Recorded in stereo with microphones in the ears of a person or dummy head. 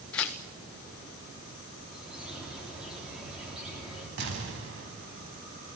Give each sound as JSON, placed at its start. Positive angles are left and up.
{"t": 0.1, "sound": "tearing paper", "side_deg": 10, "distance_m": 0.6}
{"t": 1.9, "sound": "a bird", "side_deg": 0, "distance_m": 3.5}
{"t": 4.2, "sound": "an explosion", "side_deg": -55, "distance_m": 3.5}